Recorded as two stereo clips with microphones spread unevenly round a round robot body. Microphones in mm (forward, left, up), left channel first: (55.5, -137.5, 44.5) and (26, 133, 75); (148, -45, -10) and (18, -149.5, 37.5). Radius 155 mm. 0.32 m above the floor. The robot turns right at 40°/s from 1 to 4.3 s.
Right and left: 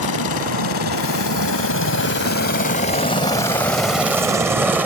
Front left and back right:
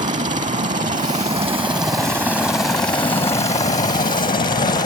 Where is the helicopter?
95° right; by 4.9 s 5° left.